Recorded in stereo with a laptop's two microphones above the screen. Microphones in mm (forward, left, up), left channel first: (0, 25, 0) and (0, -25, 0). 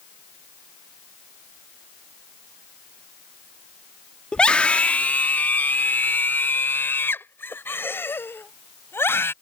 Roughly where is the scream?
Left.